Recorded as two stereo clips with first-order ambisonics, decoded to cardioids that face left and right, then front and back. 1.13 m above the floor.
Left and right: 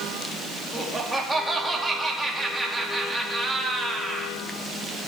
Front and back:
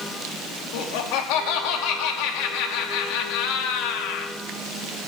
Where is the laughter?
Straight ahead, 2 m.